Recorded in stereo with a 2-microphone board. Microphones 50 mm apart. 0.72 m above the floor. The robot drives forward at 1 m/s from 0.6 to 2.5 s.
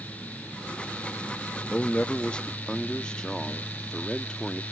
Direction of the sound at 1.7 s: 30° left (ahead or behind).